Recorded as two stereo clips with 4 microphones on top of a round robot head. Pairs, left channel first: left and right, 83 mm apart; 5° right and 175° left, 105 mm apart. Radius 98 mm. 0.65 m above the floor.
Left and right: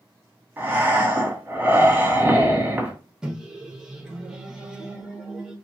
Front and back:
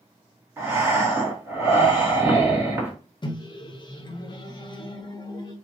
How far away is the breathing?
About 1.3 m.